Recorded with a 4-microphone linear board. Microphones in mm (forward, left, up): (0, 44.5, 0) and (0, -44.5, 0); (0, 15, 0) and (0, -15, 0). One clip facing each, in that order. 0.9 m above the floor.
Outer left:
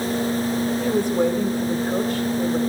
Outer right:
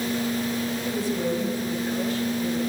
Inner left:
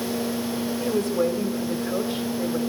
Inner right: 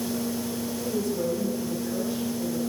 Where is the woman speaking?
60° left (ahead or behind), 2 m.